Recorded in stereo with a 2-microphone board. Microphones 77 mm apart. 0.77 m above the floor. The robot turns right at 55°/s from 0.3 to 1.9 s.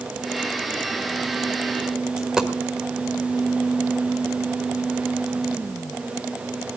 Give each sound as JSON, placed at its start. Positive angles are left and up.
{"t": 2.2, "sound": "a dropped coin", "side_deg": -5, "distance_m": 1.4}